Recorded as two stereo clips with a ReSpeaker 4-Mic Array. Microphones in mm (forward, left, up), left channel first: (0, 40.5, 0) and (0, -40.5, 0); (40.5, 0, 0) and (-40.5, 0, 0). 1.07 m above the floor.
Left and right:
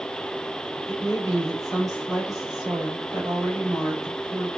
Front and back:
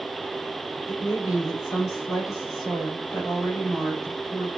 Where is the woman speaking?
45° right, 2.5 m.